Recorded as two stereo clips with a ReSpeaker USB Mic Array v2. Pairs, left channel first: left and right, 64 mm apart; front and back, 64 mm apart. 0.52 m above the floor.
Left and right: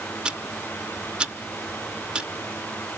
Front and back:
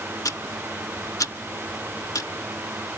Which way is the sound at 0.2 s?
15° right.